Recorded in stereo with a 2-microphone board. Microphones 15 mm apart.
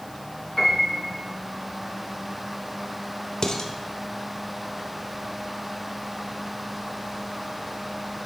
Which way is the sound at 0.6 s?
25° left (ahead or behind).